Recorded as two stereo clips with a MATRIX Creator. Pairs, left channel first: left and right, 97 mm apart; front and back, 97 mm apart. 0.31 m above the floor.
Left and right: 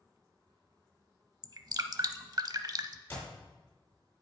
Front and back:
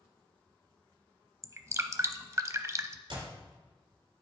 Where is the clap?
160° left, 4.5 m.